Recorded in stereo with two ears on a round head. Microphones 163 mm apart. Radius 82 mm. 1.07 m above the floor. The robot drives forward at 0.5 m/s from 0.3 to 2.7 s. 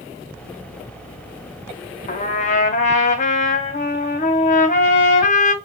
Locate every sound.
2.1 s a trumpet: 40° left (ahead or behind), 0.7 m; by 5.5 s 45° left (ahead or behind), 0.7 m